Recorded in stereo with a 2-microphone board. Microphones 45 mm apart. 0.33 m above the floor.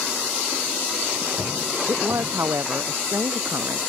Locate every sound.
1.9 s a woman speaking: 85° right; by 3.8 s 75° right (ahead or behind)